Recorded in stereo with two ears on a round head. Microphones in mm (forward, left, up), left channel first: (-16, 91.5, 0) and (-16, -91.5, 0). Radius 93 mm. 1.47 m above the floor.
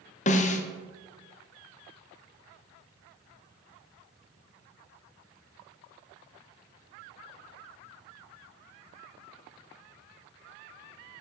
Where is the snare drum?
35° left (ahead or behind), 0.7 m.